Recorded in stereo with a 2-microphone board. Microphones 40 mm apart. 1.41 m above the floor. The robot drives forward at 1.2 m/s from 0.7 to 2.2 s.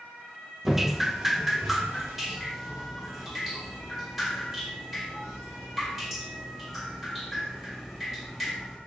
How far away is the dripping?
About 0.5 m.